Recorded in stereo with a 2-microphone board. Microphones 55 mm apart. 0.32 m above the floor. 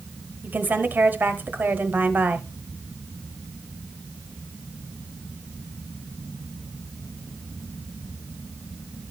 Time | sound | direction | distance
0.4 | a woman speaking | 35° right (ahead or behind) | 1.0 m